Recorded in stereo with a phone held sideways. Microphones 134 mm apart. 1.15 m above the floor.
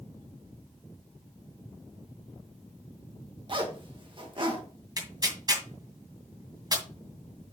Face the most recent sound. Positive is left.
turn(degrees=-30)  # may be behind; listen again after turning